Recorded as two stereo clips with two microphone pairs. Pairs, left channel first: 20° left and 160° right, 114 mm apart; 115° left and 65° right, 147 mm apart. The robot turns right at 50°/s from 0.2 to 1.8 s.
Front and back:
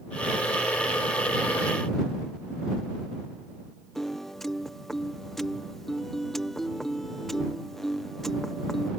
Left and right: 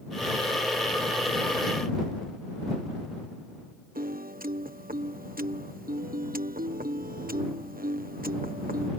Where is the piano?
70° right.